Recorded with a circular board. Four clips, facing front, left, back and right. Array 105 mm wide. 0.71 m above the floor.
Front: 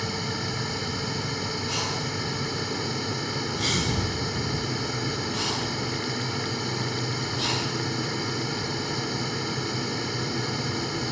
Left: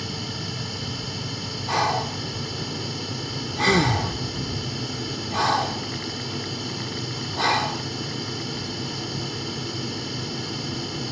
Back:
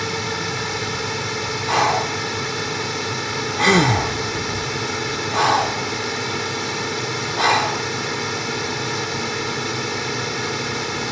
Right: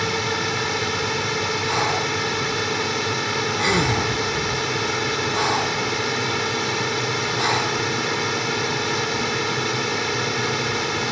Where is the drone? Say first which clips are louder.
Right 9 dB, back 6 dB; 120° right.